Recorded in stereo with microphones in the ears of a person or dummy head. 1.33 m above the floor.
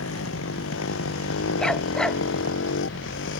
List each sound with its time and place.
0.0 s a motorcycle: 85° left; by 3.4 s 70° left (ahead or behind)
1.6 s a dog barking: centre (ahead or behind)